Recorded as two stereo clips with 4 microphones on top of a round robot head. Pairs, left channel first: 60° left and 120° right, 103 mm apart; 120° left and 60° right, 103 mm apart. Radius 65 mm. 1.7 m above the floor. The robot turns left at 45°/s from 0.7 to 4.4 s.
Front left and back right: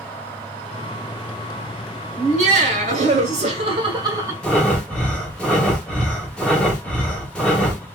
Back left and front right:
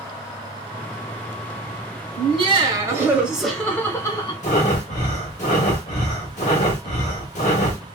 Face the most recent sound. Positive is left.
turn(degrees=140)